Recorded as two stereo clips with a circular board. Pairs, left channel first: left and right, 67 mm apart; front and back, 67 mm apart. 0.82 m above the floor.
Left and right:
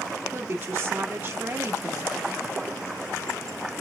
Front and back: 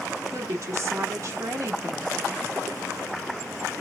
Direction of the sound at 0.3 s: 150° right.